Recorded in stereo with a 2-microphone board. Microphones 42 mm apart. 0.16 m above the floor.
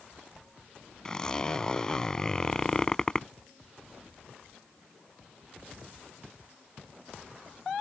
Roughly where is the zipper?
Centre.